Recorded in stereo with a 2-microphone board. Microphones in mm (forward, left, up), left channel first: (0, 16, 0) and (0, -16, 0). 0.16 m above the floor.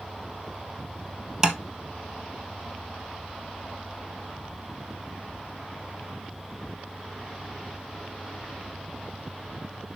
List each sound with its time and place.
1.4 s tapping: 15° right (ahead or behind), 1.3 m